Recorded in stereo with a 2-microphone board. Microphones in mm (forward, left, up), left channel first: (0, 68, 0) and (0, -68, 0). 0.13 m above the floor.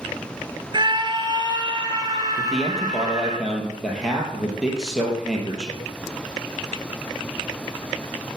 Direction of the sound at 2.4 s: 5° right (ahead or behind).